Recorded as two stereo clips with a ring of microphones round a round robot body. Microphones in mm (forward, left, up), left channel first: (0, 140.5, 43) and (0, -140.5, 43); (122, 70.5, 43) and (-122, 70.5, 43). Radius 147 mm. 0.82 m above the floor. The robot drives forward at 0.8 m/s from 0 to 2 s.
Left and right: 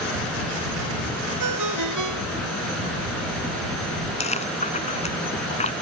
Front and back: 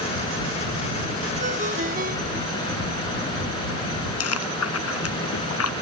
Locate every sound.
1.4 s a ringtone: 115° right
4.2 s chewing: 20° left